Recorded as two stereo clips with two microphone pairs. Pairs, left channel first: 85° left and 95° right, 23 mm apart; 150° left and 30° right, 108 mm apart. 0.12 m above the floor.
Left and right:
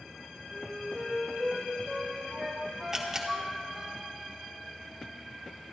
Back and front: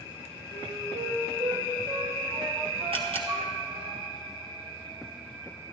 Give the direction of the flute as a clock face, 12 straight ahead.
12 o'clock.